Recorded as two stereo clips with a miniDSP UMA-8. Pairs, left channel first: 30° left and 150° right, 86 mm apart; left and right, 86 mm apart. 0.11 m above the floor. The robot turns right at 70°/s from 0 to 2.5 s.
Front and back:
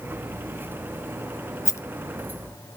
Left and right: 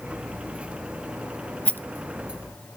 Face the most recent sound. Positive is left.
turn(degrees=90)